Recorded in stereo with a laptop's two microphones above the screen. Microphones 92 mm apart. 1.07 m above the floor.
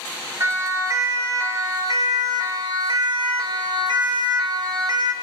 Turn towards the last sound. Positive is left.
turn(degrees=-50)  # may be behind; listen again after turning